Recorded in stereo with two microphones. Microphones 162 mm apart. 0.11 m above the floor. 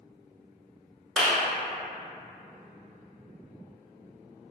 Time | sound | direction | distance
1.2 | a clap | 5° left (ahead or behind) | 0.9 m